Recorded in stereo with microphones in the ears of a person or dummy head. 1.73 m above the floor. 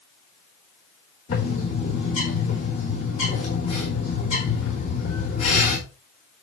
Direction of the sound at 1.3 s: 35° left (ahead or behind).